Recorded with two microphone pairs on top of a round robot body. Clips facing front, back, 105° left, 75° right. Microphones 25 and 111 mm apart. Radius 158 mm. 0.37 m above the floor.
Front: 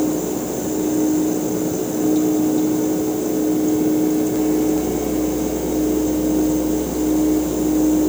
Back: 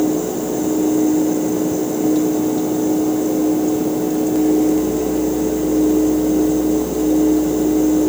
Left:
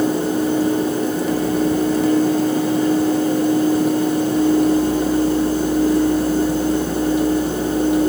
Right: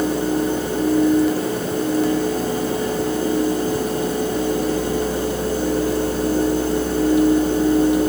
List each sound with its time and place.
Only background noise.